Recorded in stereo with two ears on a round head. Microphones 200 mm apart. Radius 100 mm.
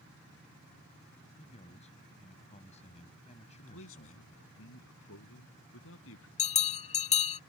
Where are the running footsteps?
No running footsteps in this recording.